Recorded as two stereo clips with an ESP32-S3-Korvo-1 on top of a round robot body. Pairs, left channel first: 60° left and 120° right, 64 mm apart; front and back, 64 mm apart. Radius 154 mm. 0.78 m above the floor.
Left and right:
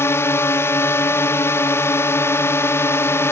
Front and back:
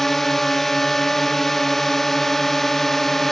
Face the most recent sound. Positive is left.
turn(degrees=85)